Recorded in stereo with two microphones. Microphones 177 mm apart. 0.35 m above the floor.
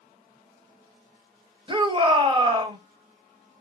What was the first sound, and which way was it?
A shout, 30° right (ahead or behind).